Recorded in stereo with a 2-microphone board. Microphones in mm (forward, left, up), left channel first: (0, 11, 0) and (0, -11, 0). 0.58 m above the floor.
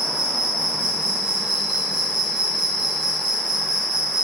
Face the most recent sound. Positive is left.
turn(degrees=-60)  # may be behind; listen again after turning